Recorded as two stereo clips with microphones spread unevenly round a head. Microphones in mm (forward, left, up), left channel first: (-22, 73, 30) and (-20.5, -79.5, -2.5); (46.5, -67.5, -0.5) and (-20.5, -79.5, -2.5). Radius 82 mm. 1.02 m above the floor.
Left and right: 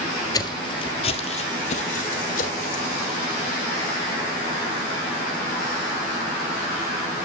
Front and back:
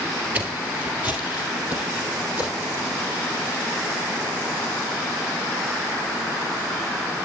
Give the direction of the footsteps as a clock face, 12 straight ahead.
8 o'clock.